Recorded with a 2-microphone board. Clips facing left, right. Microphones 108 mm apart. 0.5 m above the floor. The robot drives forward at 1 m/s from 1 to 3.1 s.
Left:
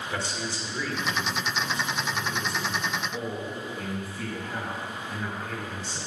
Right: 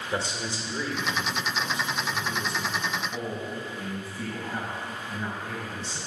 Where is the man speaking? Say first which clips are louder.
Right 3 dB; 20° right (ahead or behind), 1.7 m; by 6.0 s 10° right (ahead or behind), 3.5 m.